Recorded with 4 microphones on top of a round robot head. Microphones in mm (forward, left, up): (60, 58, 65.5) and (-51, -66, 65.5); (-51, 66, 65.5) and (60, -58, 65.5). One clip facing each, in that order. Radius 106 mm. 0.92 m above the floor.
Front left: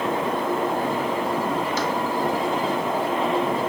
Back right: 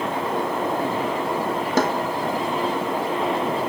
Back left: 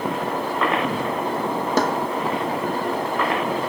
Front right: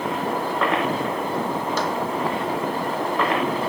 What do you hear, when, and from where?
1.8 s a snare drum: straight behind